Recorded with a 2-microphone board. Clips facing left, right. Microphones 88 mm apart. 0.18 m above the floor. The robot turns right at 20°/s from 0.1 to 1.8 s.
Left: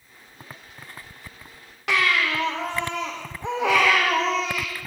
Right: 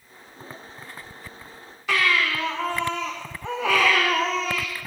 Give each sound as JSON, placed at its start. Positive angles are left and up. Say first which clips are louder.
{"t": 1.9, "sound": "a baby crying", "louder": "even", "side_deg": 75, "distance_m": 6.5}